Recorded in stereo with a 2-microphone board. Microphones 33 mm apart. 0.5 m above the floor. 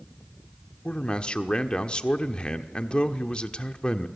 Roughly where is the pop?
No pop in this recording.